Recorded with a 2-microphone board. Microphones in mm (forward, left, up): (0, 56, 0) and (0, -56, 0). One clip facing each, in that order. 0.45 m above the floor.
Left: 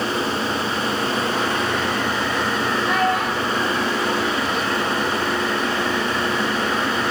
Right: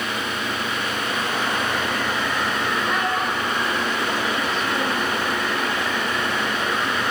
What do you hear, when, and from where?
2.9 s a child speaking: 70° left (ahead or behind), 3 m; by 5.1 s 45° right (ahead or behind), 1.1 m